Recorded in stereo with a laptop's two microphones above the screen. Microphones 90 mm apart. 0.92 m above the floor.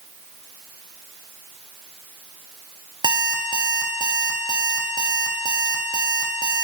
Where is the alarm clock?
55° right (ahead or behind), 0.6 m.